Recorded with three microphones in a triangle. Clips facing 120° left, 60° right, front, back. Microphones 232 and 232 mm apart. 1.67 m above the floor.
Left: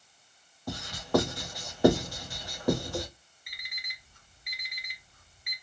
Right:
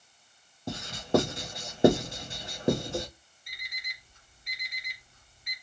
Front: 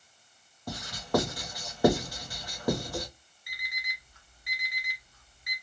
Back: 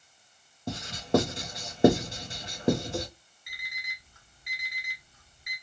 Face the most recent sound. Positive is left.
turn(degrees=-120)